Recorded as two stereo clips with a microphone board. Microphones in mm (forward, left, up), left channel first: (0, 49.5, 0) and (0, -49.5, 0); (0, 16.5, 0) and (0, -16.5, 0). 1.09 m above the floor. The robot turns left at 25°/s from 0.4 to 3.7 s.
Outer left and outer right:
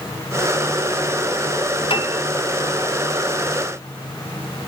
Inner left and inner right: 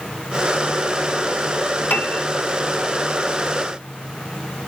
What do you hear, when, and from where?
1.9 s a piano: 60° left (ahead or behind), 1.5 m